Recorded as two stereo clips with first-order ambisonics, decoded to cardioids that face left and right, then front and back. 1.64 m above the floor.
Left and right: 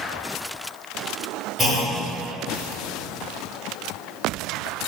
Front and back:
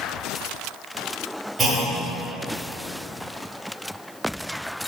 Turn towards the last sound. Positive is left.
turn(degrees=-150)